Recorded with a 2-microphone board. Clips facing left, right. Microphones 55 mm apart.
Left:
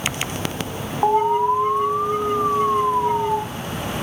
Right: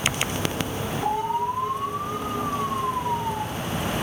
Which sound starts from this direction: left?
An alarm, at 1.0 s.